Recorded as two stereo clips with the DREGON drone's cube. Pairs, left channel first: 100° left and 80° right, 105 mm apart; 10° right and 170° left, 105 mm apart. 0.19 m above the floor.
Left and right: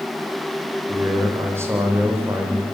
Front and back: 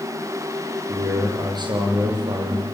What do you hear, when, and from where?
0.9 s a man speaking: 145° right, 8 m